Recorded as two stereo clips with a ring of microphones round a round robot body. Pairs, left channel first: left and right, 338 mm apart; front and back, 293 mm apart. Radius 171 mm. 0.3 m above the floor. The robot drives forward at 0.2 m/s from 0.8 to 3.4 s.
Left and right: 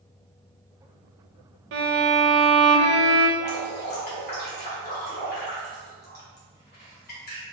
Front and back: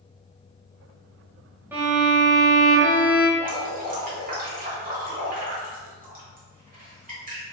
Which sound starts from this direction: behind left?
Dripping, at 3.4 s.